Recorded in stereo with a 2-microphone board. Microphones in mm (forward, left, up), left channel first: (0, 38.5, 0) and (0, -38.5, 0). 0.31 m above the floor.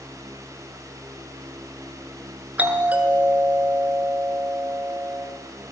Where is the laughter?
I don't hear laughter.